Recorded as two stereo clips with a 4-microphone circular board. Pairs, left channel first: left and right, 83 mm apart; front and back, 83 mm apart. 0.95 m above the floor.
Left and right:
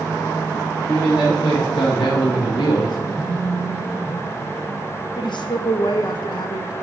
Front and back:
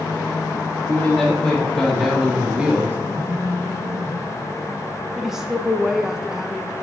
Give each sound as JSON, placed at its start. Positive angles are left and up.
{"t": 0.9, "sound": "a man speaking", "azimuth_deg": 70, "distance_m": 1.6}
{"t": 3.1, "sound": "a phone buzzing", "azimuth_deg": -155, "distance_m": 2.5}
{"t": 5.2, "sound": "a woman speaking", "azimuth_deg": 95, "distance_m": 0.7}